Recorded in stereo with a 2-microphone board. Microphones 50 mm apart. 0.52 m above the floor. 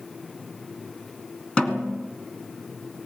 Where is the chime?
No chime in this recording.